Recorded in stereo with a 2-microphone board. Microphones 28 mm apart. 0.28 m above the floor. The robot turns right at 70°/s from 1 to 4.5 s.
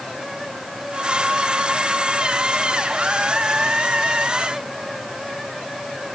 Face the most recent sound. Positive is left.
No sound to turn to.